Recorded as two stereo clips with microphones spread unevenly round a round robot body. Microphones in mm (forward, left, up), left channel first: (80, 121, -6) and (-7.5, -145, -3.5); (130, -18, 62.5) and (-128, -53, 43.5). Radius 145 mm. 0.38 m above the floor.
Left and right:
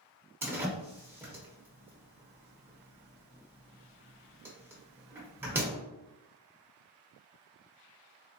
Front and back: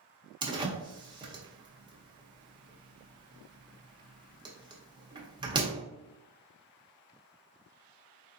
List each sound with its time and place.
0.4 s a door slam: 175° right, 0.8 m